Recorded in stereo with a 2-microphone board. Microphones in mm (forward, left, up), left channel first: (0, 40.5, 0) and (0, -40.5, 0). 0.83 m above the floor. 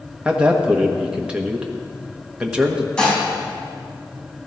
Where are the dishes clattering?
10° left (ahead or behind), 4.5 m.